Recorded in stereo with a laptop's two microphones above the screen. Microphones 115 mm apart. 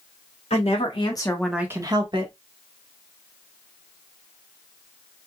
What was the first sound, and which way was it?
A woman speaking, 65° left (ahead or behind).